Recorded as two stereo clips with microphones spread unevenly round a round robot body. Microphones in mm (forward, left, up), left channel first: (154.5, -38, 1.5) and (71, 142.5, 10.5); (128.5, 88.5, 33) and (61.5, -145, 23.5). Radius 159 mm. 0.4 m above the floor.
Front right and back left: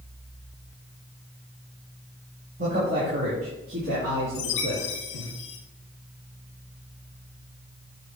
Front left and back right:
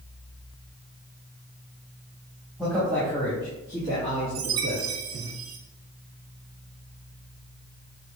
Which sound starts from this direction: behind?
A man speaking, at 2.6 s.